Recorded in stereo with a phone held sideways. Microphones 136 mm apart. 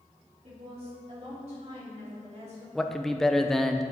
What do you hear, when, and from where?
0.4 s a woman speaking: 50° right (ahead or behind), 3.5 m; by 2.6 s 60° right (ahead or behind), 4.5 m
2.8 s a man speaking: centre (ahead or behind), 0.7 m